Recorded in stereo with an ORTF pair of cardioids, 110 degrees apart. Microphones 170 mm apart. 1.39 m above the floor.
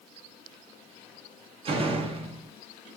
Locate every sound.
1.6 s a door slam: 35° right, 1.2 m